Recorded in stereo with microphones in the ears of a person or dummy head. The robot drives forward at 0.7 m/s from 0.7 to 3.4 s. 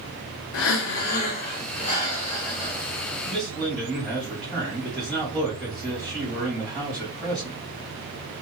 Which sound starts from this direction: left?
Breathing, at 0.5 s.